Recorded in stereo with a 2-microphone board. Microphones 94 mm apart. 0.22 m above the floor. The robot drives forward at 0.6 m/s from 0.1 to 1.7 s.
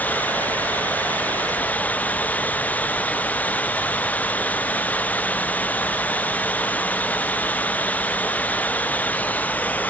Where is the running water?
20° left (ahead or behind).